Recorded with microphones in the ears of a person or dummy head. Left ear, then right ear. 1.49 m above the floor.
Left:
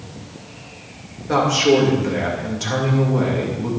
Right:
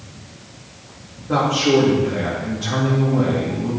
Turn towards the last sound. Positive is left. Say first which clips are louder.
# left 1 dB
turn(degrees=75)  # may be behind; listen again after turning